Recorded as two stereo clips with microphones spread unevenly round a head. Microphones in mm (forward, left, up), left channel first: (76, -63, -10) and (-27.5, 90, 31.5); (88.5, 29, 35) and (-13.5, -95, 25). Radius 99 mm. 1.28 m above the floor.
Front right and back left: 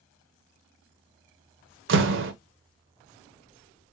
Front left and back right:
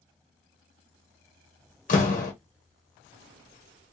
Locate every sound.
1.9 s a door slam: 105° left, 1.1 m